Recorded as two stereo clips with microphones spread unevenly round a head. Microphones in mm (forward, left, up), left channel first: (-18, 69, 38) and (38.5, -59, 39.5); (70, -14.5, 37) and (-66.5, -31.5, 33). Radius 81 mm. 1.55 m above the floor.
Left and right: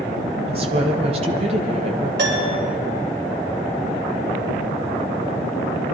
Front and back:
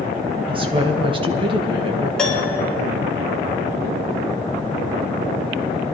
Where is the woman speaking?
120° right, 1.5 m.